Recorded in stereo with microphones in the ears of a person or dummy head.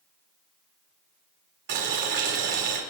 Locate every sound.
1.7 s boiling: 60° right (ahead or behind), 2.5 m